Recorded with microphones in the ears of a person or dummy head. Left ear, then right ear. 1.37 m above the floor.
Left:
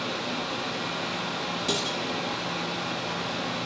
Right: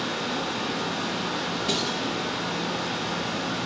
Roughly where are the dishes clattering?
Centre.